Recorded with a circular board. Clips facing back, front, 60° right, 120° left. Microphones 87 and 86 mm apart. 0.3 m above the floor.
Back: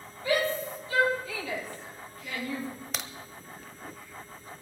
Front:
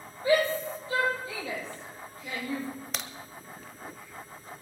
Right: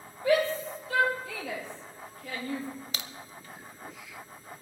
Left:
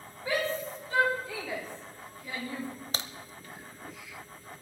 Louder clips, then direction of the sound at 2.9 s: Even, left 3 dB; 90° left.